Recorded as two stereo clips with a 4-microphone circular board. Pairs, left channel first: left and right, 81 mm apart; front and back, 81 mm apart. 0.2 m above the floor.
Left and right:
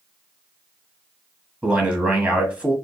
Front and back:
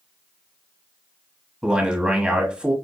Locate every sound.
1.6 s a man speaking: 125° right, 1.2 m